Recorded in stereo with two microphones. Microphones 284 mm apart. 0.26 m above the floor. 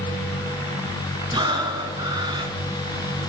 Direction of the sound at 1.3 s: 15° right (ahead or behind).